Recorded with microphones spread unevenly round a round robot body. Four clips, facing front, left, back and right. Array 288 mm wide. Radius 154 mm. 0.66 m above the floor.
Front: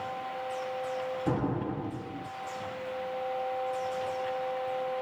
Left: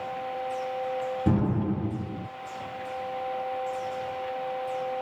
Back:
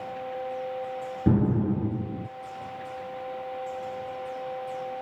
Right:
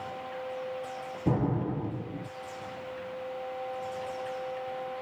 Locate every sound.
1.3 s an explosion: 165° left, 2 m